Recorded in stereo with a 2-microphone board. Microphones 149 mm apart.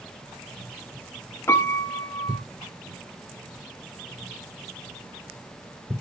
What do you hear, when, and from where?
1.5 s a piano: 20° left (ahead or behind), 1.6 m